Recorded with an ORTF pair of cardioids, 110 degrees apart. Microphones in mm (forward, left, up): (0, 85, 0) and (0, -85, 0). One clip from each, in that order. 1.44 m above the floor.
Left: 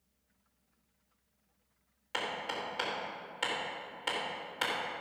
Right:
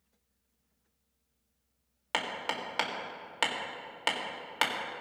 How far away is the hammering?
About 1.8 m.